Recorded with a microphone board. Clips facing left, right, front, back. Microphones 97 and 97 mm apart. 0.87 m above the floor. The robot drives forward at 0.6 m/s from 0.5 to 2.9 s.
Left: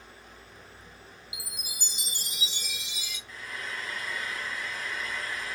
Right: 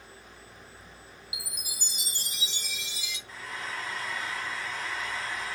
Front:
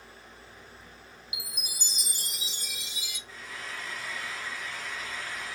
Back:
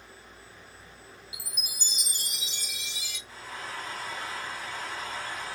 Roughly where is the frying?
Behind right.